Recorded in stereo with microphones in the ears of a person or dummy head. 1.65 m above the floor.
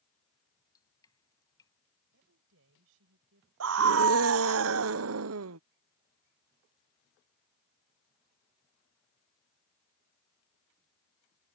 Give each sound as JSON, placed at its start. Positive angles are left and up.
{"t": 0.5, "sound": "dripping", "side_deg": 20}
{"t": 2.1, "sound": "a woman speaking", "side_deg": -75}
{"t": 3.6, "sound": "a scream", "side_deg": -80}